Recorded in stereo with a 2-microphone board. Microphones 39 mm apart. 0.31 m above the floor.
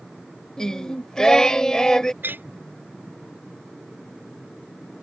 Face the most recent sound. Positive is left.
turn(degrees=-60)  # may be behind; listen again after turning